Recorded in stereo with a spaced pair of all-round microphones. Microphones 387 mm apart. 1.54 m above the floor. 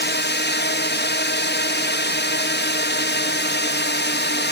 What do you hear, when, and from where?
0.0 s a drone: 25° left (ahead or behind)